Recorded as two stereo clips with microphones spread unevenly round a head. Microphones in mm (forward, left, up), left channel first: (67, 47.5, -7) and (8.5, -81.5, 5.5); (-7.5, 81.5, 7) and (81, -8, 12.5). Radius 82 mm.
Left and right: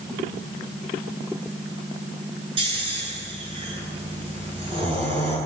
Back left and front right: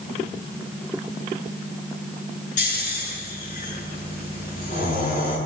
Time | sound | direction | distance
2.6 | snoring | 175° right | 8.5 m